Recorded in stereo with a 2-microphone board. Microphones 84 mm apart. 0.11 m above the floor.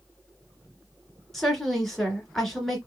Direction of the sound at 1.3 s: 5° left (ahead or behind).